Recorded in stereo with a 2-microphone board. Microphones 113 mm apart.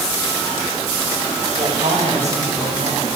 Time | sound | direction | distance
1.6 | a woman speaking | 75° right (ahead or behind) | 9.5 m